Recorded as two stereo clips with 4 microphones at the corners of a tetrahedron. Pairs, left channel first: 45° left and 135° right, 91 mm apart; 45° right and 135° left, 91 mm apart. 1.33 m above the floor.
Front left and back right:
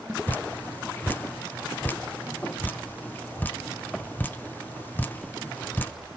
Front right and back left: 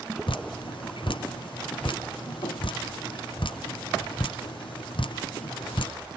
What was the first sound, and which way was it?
Dripping, 25° right.